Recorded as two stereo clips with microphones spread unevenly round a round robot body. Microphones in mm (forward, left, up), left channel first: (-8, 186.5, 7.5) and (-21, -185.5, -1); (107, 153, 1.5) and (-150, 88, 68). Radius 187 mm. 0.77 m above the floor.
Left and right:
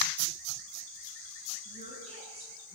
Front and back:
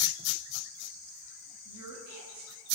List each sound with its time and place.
1.6 s a woman speaking: 165° right, 9.5 m